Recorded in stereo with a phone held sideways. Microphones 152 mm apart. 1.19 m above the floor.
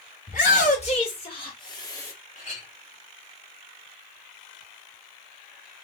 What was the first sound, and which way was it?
A shout, 55° left (ahead or behind).